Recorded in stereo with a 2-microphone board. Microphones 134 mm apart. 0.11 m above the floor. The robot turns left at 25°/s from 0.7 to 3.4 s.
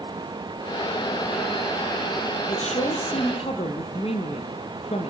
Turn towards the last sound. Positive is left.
turn(degrees=50)  # may be behind; listen again after turning